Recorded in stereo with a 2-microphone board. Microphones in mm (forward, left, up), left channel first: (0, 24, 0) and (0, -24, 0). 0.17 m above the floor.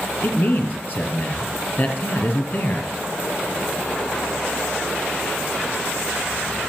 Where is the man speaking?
45° left (ahead or behind), 4 m.